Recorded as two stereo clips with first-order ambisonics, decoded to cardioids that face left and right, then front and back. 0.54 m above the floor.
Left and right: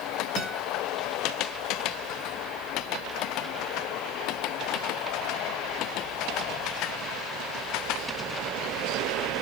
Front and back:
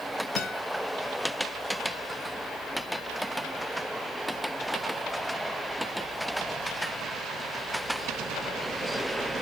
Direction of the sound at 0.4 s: 20° right.